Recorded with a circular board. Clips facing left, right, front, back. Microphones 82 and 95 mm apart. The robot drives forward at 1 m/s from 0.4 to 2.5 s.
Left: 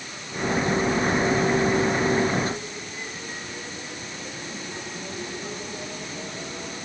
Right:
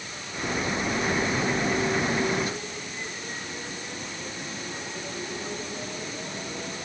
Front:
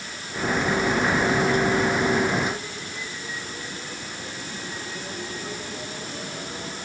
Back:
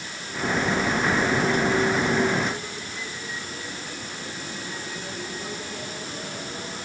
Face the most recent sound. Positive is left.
No sound to turn to.